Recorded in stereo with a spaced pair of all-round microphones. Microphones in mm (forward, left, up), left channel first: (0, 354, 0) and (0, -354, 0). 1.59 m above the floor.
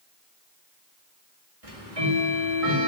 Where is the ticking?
50° right (ahead or behind), 4 m.